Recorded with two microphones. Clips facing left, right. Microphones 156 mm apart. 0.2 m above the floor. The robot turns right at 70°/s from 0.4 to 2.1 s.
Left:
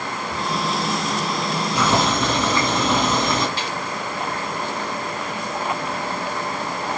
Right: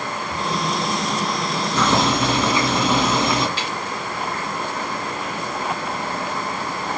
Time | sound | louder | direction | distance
1.8 | boiling | right 1 dB | 15° left (ahead or behind) | 1.9 m
3.6 | a snare drum | even | 45° left (ahead or behind) | 3 m